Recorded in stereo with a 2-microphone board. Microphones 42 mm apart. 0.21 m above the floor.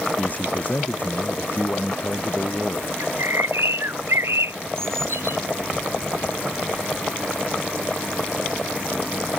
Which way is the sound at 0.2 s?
35° left (ahead or behind).